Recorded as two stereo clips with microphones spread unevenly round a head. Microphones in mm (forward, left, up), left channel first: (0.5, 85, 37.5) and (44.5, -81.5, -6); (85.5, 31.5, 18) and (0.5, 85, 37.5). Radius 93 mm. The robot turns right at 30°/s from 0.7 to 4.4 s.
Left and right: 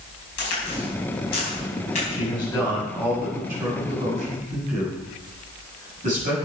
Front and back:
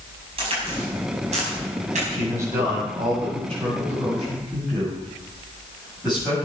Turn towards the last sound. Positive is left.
turn(degrees=-125)